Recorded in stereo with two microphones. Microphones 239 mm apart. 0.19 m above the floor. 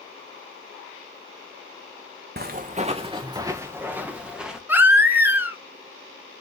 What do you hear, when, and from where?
2.4 s footsteps: 45° right (ahead or behind), 1.0 m; by 4.6 s centre (ahead or behind), 2.5 m
4.7 s a baby crying: 10° right (ahead or behind), 1.8 m